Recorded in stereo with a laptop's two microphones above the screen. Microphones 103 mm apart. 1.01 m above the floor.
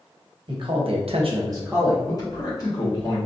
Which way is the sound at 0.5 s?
50° right (ahead or behind).